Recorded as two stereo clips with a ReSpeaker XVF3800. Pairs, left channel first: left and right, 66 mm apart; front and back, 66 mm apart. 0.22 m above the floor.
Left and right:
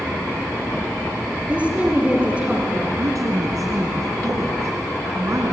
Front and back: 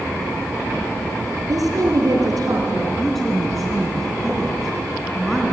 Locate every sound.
1.5 s a woman speaking: 160° right, 4.5 m
3.0 s a woman speaking: 85° right, 3 m